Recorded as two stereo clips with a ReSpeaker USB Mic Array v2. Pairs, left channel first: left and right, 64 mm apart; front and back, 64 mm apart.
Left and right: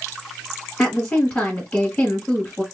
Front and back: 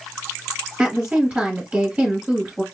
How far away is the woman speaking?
About 1.3 m.